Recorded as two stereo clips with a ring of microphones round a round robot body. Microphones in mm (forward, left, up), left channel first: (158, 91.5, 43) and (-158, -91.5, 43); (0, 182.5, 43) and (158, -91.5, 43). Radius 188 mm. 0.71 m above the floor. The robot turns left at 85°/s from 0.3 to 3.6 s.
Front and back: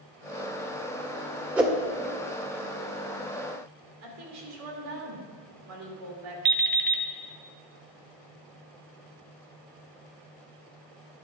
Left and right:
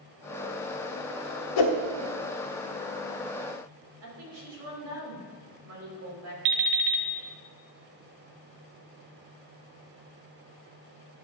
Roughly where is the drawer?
I don't hear a drawer.